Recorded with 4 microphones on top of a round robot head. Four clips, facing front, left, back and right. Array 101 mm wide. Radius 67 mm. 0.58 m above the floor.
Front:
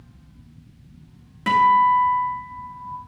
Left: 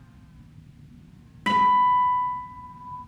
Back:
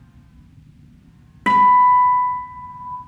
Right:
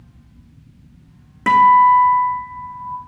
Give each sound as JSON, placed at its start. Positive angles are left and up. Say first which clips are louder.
{"t": 1.5, "sound": "a guitar", "louder": "right 9 dB, back 4 dB", "azimuth_deg": -140, "distance_m": 1.5}